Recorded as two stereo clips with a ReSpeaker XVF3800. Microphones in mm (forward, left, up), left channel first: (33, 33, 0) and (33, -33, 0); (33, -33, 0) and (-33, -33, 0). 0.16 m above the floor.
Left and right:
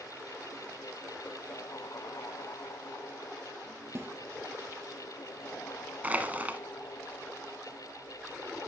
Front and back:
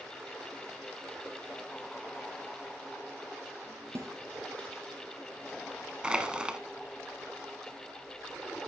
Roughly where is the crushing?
Behind right.